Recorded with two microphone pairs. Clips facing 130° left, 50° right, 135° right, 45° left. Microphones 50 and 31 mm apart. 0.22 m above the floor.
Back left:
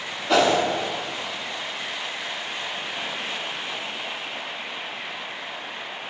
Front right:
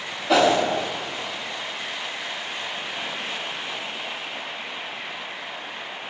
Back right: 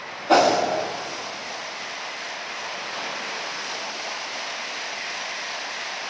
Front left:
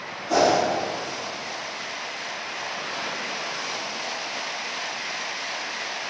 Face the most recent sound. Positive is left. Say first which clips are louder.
# front right 1 dB, back right 3 dB
turn(degrees=-140)